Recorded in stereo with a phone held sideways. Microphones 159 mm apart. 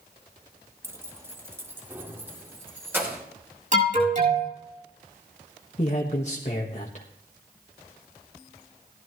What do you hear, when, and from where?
0.8 s keys jangling: 15° right (ahead or behind), 0.9 m
3.7 s an alarm: 50° right (ahead or behind), 6 m
5.8 s a man speaking: 45° left (ahead or behind), 1.4 m